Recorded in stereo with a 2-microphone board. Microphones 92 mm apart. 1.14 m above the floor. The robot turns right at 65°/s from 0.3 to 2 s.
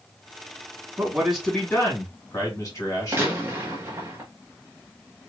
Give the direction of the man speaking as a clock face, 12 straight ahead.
1 o'clock.